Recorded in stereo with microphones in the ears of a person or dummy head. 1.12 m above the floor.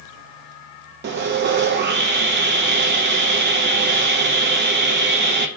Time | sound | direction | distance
1.0 | sawing | 50° right (ahead or behind) | 0.5 m